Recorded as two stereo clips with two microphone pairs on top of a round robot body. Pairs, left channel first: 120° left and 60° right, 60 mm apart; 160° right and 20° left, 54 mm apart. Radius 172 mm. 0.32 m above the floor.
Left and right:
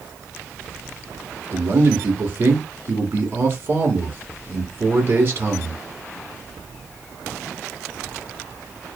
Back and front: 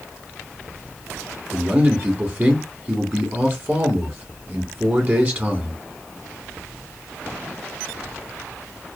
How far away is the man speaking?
About 1.1 m.